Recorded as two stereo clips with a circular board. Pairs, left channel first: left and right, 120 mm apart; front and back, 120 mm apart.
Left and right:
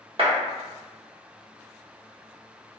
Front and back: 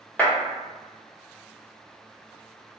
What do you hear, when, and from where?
0.2 s a clap: 75° right, 1.1 m